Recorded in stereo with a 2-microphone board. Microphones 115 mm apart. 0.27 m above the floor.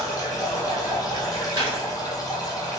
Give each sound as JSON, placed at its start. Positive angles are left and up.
{"t": 0.0, "sound": "running water", "side_deg": 35, "distance_m": 0.8}
{"t": 1.6, "sound": "a gunshot", "side_deg": -45, "distance_m": 0.7}